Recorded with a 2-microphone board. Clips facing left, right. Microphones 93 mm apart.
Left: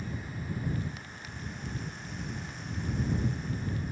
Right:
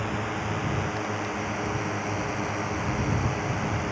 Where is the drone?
70° right (ahead or behind).